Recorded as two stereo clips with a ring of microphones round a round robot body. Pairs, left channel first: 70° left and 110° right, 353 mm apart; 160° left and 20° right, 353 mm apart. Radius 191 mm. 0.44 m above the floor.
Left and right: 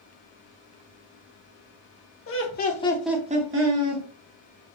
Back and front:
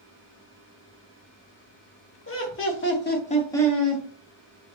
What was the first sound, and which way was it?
Laughter, 110° left.